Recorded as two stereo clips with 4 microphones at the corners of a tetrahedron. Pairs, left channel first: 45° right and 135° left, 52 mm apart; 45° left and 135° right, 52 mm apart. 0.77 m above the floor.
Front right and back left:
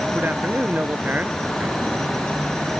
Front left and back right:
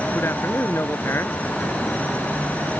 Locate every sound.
0.1 s a man speaking: 80° left